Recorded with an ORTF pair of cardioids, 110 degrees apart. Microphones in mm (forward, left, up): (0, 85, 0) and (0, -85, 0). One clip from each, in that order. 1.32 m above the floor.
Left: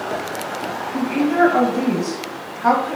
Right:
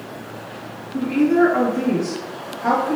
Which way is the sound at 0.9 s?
30° left.